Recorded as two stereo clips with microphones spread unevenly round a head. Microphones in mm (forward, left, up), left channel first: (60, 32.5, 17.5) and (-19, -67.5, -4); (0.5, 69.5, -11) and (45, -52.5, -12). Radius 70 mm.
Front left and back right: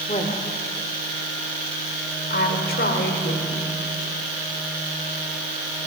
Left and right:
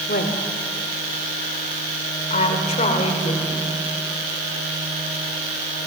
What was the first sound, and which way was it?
A woman speaking, 105° left.